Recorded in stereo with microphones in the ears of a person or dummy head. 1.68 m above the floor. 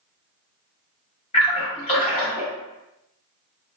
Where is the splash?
25° left (ahead or behind), 1.1 m.